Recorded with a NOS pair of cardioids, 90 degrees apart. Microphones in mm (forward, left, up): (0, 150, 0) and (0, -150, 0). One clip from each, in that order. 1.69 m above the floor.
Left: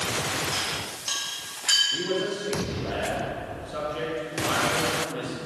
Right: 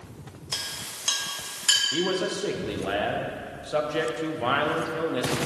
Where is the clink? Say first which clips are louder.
Left 4 dB; 30° right, 1.8 m.